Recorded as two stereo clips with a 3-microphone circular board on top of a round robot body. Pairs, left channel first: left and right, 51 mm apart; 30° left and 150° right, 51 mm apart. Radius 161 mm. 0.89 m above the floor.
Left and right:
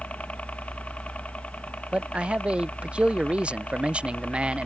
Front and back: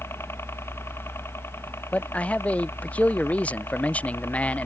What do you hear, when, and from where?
0.0 s a helicopter: 35° left
1.9 s a man speaking: 30° right